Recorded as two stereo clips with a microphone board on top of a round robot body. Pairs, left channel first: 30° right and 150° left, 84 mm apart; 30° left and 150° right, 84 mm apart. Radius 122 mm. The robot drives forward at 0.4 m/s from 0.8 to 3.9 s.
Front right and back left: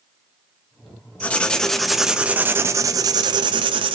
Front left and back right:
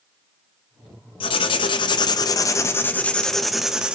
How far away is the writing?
About 0.8 m.